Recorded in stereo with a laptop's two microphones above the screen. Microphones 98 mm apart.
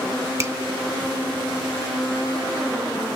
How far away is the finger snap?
About 1.3 m.